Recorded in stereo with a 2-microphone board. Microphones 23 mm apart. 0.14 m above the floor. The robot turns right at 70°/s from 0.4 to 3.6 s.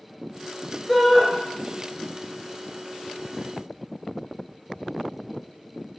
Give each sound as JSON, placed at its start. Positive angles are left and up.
{"t": 0.9, "sound": "a shout", "side_deg": 25, "distance_m": 1.8}